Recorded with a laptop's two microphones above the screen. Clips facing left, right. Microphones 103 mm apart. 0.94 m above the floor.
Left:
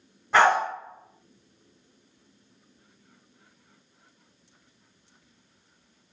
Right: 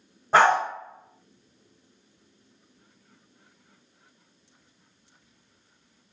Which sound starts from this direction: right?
A dog barking, at 0.3 s.